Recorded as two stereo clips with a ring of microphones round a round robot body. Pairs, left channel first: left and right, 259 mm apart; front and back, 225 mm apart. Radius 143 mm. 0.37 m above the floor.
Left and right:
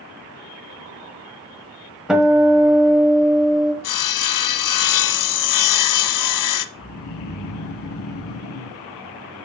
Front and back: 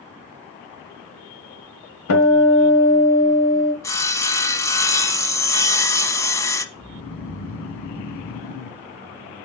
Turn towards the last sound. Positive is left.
turn(degrees=55)